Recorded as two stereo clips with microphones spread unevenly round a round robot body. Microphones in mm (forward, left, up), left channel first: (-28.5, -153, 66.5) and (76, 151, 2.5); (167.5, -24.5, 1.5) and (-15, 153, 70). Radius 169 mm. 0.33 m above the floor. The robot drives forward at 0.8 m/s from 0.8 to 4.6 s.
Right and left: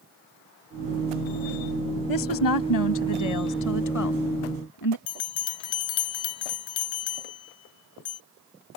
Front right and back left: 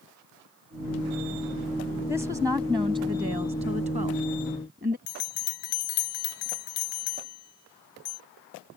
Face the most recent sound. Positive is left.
turn(degrees=-75)